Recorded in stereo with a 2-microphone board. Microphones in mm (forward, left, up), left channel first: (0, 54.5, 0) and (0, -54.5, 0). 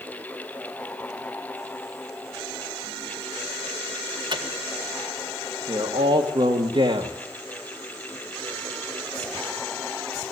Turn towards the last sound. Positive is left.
turn(degrees=-50)  # may be behind; listen again after turning